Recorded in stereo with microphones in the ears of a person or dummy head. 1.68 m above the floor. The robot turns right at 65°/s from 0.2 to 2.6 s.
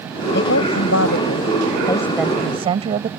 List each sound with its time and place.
0.3 s a woman speaking: 60° left; by 3.1 s 150° right